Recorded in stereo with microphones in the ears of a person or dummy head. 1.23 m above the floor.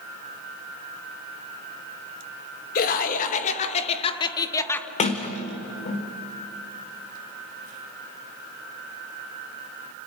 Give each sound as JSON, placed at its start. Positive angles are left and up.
{"t": 2.8, "sound": "laughter", "side_deg": 50, "distance_m": 2.0}
{"t": 5.0, "sound": "a sliding door", "side_deg": 30, "distance_m": 1.6}